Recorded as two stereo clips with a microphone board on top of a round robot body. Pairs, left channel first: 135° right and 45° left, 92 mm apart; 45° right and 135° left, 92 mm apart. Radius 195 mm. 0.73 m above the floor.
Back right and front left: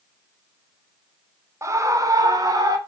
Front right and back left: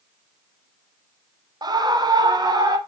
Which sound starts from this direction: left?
A scream, at 1.6 s.